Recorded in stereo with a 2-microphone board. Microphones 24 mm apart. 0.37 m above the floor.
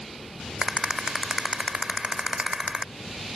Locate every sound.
0.6 s a rattle: 30° right (ahead or behind)